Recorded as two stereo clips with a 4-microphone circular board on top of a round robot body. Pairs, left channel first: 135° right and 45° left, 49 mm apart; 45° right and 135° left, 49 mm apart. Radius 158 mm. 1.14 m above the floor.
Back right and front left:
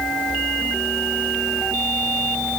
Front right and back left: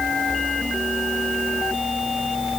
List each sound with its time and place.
Only background noise.